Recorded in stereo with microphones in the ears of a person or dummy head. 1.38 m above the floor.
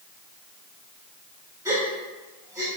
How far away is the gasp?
About 2 m.